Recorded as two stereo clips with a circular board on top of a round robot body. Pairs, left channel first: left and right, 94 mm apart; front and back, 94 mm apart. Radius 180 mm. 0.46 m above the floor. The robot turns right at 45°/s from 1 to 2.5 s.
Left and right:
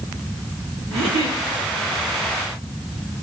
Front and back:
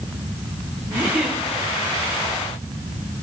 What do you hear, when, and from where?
0.9 s a giggle: 110° right, 5 m; by 1.4 s 90° right, 5 m